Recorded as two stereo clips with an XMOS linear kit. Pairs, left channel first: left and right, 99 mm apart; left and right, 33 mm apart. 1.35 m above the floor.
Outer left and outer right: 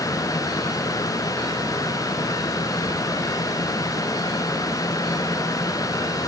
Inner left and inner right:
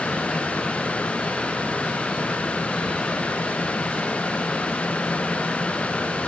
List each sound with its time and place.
Only background noise.